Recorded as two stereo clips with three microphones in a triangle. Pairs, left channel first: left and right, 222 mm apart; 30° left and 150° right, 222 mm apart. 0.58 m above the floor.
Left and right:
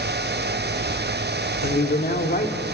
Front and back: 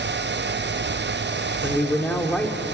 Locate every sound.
1.6 s a man speaking: 110° left, 1.9 m